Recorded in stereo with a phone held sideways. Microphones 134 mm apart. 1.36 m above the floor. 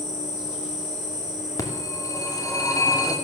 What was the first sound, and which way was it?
An insect, 65° left (ahead or behind).